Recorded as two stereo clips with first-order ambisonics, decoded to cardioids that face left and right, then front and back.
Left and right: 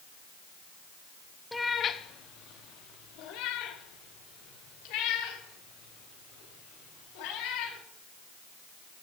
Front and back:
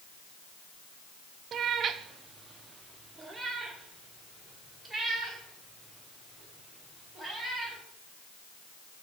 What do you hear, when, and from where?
1.5 s a cat meowing: 170° left, 0.5 m; by 7.8 s 95° left, 4 m